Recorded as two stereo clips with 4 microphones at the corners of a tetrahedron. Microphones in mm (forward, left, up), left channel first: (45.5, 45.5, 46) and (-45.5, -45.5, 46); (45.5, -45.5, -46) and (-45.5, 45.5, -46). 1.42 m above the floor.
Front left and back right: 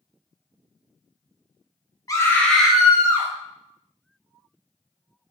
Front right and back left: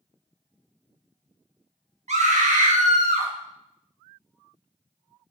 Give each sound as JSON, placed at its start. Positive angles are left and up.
{"t": 2.1, "sound": "a scream", "azimuth_deg": 105, "distance_m": 0.6}